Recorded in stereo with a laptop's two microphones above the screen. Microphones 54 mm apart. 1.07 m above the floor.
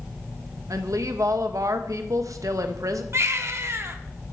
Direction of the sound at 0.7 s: 75° right (ahead or behind).